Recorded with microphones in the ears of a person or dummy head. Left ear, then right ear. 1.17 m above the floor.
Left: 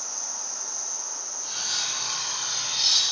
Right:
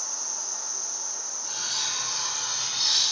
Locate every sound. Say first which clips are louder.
0.0 s an insect: right 1 dB; 25° right (ahead or behind), 1.0 m
1.4 s cutlery clinking: left 1 dB; 80° left, 2.0 m